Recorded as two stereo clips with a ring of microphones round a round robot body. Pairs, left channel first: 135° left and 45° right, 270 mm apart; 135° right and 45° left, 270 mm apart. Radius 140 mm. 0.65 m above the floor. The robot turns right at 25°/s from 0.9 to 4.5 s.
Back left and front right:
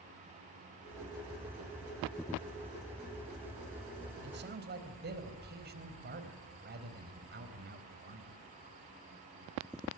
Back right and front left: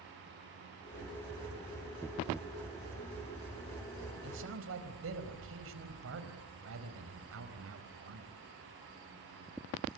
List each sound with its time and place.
4.2 s a man speaking: straight ahead, 4 m; by 8.3 s 5° left, 4 m